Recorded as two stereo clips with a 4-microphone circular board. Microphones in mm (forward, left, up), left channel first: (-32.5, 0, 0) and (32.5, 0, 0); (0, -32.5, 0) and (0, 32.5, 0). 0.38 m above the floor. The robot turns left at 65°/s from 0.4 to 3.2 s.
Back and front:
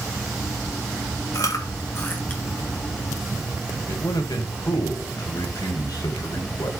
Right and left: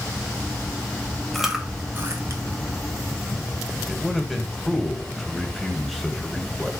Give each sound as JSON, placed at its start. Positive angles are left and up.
{"t": 1.3, "sound": "chewing", "azimuth_deg": 180, "distance_m": 1.7}
{"t": 3.9, "sound": "a man speaking", "azimuth_deg": 180, "distance_m": 1.8}